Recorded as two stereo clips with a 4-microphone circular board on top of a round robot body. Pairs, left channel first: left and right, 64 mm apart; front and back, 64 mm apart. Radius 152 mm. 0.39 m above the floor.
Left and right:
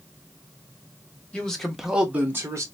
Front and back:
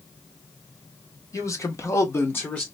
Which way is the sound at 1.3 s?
20° left.